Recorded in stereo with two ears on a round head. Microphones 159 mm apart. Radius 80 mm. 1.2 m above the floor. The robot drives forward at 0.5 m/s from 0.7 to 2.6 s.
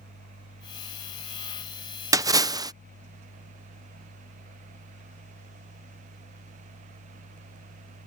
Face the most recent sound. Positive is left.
turn(degrees=-20)  # may be behind; listen again after turning